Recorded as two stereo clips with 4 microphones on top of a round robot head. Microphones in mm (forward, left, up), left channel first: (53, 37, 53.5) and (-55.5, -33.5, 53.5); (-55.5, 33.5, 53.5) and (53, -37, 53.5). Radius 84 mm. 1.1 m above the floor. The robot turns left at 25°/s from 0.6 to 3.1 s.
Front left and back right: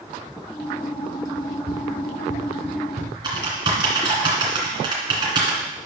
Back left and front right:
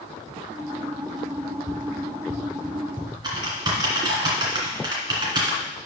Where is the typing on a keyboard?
90° right, 2 m.